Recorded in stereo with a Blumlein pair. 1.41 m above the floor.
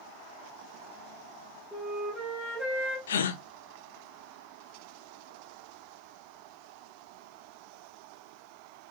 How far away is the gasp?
About 1.1 m.